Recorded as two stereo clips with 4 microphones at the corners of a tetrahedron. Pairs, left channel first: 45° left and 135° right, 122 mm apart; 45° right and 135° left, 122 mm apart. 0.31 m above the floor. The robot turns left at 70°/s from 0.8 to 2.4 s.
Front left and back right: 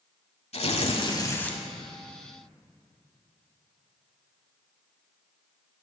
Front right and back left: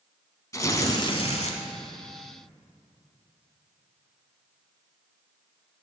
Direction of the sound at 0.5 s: 15° left.